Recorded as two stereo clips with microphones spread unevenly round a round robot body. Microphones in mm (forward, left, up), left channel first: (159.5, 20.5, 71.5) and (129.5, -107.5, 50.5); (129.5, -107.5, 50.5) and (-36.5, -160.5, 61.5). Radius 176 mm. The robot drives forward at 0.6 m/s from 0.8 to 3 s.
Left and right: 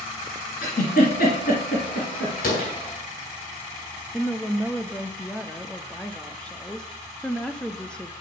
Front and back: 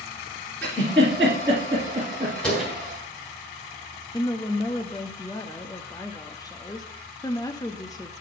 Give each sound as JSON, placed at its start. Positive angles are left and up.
{"t": 0.6, "sound": "a giggle", "azimuth_deg": 105, "distance_m": 2.0}
{"t": 2.4, "sound": "a door slam", "azimuth_deg": 100, "distance_m": 1.6}
{"t": 4.1, "sound": "a woman speaking", "azimuth_deg": -15, "distance_m": 0.7}